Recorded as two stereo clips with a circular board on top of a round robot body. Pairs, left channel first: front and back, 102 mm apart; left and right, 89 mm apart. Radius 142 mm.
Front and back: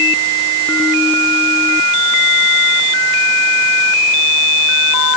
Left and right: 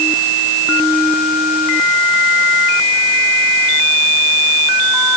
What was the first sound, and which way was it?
Only background noise.